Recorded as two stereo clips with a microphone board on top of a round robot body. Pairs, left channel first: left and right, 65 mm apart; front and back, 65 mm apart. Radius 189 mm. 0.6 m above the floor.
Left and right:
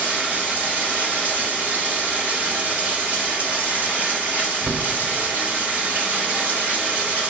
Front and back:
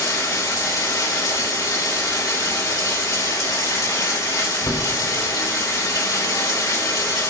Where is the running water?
25° right, 3.5 m.